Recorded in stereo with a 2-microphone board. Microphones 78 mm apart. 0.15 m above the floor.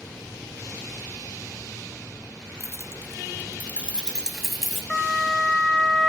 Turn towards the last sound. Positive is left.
turn(degrees=5)  # may be behind; listen again after turning